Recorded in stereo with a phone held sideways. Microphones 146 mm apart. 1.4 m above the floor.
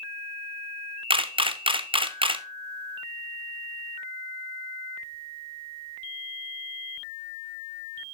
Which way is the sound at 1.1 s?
35° right (ahead or behind).